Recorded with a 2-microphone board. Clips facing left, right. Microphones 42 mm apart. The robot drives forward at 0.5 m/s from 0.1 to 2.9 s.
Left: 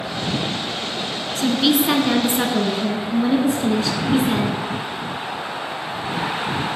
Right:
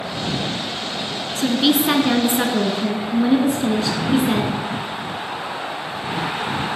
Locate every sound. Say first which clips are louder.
1.4 s a woman speaking: even; 5° right (ahead or behind), 1.1 m